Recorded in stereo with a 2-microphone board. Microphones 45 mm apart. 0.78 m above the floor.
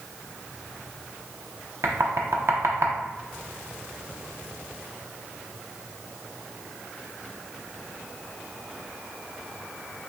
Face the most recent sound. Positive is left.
turn(degrees=-80)